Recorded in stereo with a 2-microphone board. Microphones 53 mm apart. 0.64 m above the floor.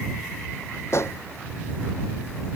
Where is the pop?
55° left (ahead or behind).